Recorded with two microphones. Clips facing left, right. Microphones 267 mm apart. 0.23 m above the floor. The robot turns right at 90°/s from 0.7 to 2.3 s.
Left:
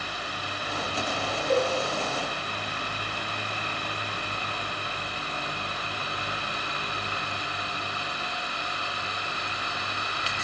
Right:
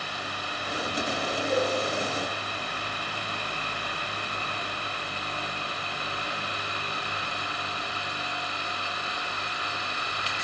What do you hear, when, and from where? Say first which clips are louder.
1.5 s a cowbell: left 2 dB; 60° left (ahead or behind), 3.5 m; by 1.7 s 45° left (ahead or behind), 3.5 m